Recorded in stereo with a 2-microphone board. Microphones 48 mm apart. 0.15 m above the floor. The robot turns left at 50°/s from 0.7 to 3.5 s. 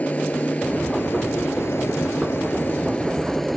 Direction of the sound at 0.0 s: 140° left.